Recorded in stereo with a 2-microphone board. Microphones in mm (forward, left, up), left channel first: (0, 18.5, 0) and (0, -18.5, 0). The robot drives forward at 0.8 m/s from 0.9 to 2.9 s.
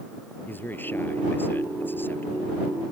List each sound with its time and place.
0.5 s a man speaking: 65° left (ahead or behind); by 2.5 s 70° left (ahead or behind)